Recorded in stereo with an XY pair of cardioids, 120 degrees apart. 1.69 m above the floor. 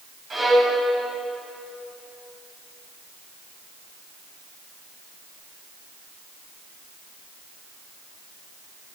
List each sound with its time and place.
0.3 s a violin: 30° right, 8 m